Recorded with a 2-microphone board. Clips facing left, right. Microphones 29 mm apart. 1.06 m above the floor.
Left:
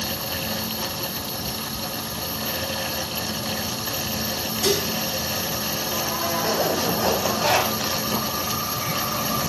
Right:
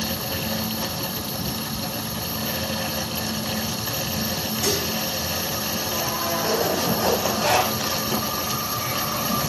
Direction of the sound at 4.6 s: 70° left (ahead or behind).